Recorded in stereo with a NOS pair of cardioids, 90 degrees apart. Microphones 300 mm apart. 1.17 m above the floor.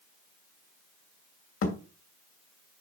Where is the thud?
50° left, 2.5 m.